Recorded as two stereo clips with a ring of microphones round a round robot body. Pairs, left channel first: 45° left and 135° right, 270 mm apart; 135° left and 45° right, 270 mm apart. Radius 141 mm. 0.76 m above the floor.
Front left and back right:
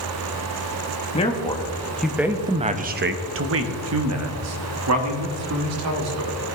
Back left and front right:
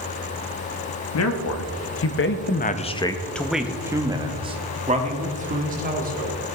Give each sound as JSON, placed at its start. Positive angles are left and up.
{"t": 1.1, "sound": "a man speaking", "azimuth_deg": 110, "distance_m": 1.1}